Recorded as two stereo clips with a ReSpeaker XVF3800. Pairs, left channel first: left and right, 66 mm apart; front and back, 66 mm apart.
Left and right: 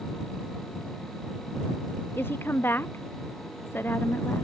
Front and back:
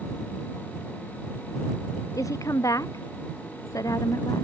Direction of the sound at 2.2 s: 35° left.